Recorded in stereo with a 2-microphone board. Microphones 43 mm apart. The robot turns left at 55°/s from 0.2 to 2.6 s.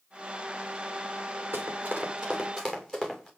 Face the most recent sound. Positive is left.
turn(degrees=5)  # may be behind; listen again after turning